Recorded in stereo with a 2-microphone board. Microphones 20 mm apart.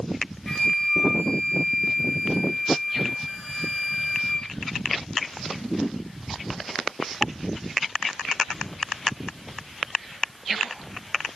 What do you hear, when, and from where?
0.5 s a flute: 15° left (ahead or behind), 6.5 m